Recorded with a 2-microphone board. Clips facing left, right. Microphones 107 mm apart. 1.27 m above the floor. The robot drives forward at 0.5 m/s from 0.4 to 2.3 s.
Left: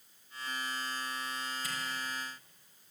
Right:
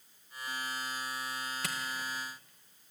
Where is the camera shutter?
75° right (ahead or behind), 1.3 m.